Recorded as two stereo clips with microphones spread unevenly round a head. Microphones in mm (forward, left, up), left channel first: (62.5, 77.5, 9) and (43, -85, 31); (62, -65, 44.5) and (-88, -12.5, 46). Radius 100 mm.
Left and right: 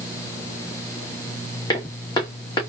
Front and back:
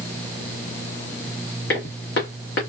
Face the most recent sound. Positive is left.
turn(degrees=15)